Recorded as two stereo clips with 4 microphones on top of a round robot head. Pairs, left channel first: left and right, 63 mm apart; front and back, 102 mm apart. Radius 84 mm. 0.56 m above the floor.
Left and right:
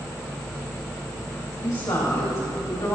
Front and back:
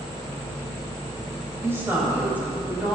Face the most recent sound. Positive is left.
turn(degrees=105)